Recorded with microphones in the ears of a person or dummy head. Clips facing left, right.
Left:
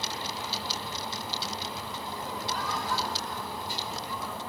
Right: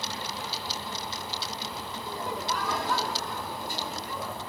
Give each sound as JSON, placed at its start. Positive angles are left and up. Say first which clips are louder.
{"t": 2.0, "sound": "laughter", "louder": "right 4 dB", "side_deg": -60, "distance_m": 5.0}